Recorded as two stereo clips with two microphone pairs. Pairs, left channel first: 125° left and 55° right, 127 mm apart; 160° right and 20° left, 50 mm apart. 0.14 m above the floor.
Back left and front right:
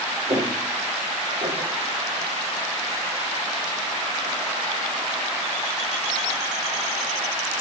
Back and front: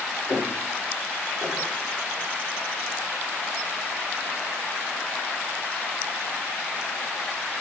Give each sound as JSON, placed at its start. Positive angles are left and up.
{"t": 0.3, "sound": "footsteps", "azimuth_deg": 0, "distance_m": 5.5}